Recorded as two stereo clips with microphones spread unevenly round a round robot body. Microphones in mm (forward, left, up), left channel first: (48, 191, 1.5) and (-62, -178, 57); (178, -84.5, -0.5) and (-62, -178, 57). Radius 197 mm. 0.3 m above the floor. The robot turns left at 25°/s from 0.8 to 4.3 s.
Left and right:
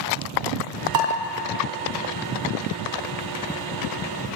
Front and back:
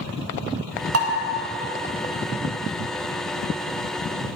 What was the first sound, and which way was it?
Dishes clattering, 130° right.